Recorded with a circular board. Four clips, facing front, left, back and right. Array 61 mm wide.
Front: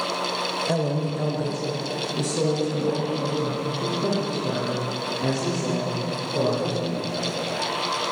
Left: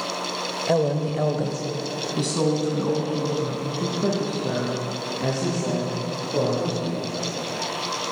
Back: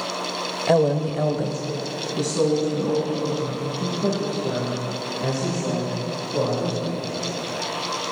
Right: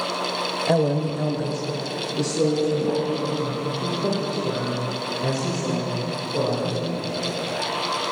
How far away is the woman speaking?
About 1.1 m.